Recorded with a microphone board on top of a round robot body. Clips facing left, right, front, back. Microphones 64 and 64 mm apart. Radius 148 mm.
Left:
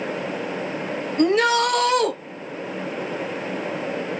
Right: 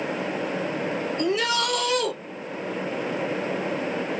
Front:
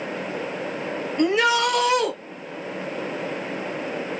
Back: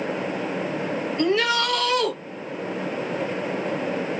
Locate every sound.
1.2 s a shout: 70° left, 1.4 m